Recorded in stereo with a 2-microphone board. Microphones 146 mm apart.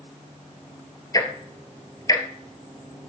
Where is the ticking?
30° left (ahead or behind), 1.4 m.